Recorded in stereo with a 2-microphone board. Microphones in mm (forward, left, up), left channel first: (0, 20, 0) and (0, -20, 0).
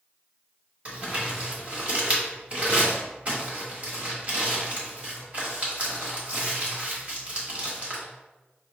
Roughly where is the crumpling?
Right.